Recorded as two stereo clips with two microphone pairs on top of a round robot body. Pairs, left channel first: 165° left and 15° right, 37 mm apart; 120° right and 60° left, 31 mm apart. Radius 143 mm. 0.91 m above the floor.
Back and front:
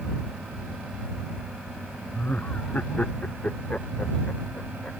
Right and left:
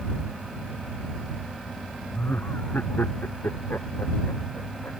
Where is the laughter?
145° right; by 4.9 s 135° right.